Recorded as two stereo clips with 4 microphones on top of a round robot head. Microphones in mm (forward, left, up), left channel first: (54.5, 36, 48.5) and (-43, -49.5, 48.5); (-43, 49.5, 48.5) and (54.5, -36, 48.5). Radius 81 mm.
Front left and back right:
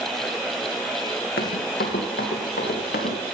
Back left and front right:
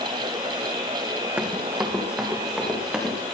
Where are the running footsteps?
35° left, 2.5 m; by 3.1 s 45° left, 5 m.